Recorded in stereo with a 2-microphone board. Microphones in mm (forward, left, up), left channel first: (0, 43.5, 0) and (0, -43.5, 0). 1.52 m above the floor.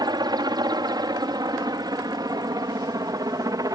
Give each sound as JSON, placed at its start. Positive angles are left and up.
{"t": 0.0, "sound": "a helicopter", "side_deg": -55}